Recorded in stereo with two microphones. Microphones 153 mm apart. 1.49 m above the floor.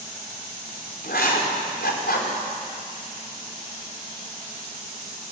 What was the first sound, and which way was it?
Writing, 90° left.